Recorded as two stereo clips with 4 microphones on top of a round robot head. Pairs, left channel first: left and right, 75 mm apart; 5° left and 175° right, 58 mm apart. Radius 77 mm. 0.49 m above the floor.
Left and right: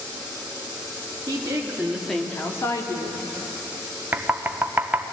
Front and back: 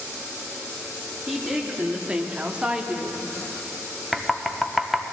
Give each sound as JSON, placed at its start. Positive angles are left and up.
{"t": 1.3, "sound": "a woman speaking", "azimuth_deg": -100, "distance_m": 1.6}
{"t": 4.1, "sound": "knocking", "azimuth_deg": -85, "distance_m": 0.8}